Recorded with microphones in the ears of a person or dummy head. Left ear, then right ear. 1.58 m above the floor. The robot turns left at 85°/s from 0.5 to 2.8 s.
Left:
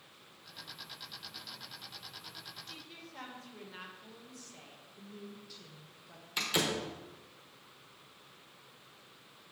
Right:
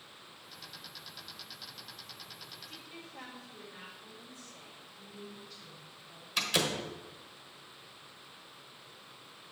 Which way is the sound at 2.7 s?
85° left.